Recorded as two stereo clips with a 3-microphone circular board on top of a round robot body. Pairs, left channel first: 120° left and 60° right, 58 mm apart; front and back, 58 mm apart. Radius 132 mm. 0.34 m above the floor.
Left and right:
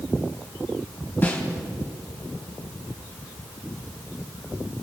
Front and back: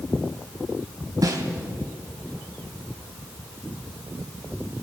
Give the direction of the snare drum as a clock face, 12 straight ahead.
6 o'clock.